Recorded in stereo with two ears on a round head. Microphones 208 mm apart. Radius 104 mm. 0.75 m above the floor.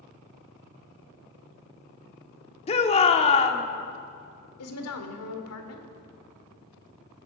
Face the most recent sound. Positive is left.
turn(degrees=70)  # may be behind; listen again after turning